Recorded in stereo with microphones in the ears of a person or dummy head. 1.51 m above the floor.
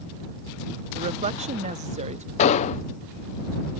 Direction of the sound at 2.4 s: 45° left (ahead or behind).